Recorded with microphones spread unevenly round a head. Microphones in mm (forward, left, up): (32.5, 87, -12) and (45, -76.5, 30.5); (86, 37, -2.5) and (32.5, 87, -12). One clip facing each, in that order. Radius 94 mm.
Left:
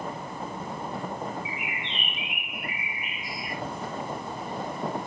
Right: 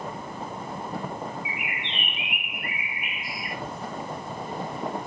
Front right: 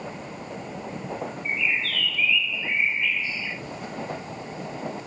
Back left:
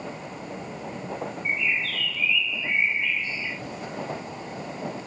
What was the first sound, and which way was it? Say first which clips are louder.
A bird: even, even; 50° right.